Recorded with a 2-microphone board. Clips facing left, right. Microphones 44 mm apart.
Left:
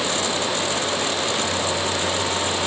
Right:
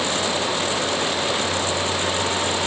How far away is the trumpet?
I don't hear a trumpet.